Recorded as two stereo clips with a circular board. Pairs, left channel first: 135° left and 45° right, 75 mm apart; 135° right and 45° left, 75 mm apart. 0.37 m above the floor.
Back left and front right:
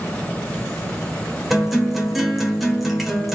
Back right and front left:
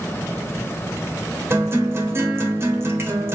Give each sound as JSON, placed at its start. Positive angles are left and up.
{"t": 1.5, "sound": "a guitar", "azimuth_deg": 45, "distance_m": 1.2}